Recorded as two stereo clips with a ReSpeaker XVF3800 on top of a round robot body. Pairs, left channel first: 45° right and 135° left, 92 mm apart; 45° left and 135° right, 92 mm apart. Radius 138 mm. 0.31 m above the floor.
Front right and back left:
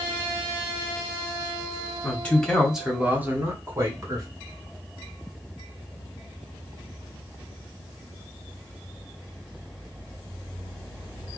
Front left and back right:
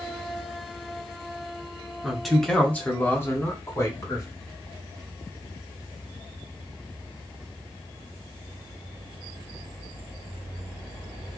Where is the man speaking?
60° right, 1.6 m; by 4.3 s 90° left, 2.5 m.